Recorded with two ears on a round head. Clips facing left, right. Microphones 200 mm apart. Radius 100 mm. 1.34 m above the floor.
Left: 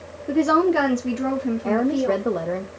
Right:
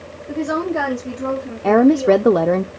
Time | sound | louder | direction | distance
0.3 | a woman speaking | left 3 dB | 70° left (ahead or behind) | 1.0 m
1.6 | a woman speaking | right 10 dB | 70° right (ahead or behind) | 0.5 m